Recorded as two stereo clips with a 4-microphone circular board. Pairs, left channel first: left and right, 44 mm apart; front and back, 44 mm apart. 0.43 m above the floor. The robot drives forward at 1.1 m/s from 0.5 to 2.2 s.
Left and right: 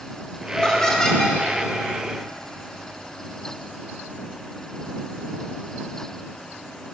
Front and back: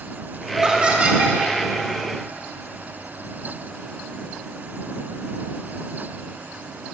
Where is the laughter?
125° left, 1.5 m; by 1.4 s 160° left, 1.9 m.